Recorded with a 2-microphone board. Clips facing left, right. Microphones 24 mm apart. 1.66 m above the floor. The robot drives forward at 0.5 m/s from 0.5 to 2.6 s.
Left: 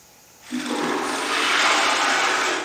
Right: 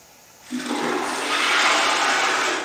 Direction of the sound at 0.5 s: 50° right (ahead or behind).